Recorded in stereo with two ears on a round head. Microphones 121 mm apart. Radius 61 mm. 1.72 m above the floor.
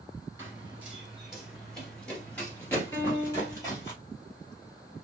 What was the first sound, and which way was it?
Running footsteps, 20° right (ahead or behind).